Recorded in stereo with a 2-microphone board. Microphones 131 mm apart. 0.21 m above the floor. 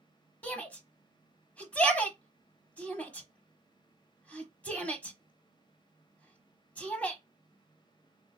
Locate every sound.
0.4 s a shout: 10° left (ahead or behind), 1.2 m